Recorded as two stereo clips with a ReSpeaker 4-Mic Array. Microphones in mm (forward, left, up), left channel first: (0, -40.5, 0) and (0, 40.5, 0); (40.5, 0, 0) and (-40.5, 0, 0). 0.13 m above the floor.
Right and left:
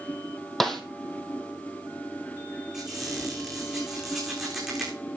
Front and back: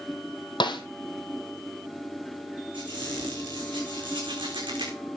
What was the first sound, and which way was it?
A snare drum, 5° right.